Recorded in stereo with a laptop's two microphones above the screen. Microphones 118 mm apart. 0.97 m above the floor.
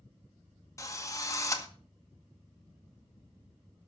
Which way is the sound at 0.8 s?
30° left (ahead or behind).